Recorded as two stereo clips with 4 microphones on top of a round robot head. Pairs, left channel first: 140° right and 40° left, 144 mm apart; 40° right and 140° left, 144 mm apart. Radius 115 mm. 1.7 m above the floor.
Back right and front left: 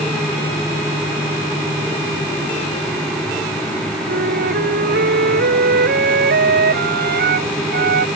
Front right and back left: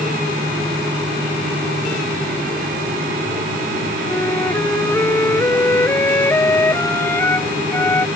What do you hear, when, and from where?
4.1 s a flute: 35° left